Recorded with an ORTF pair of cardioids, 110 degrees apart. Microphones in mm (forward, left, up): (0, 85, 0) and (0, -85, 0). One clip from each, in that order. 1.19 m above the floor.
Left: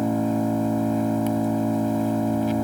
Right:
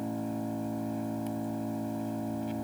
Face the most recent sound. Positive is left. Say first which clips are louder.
# left 12 dB
turn(degrees=65)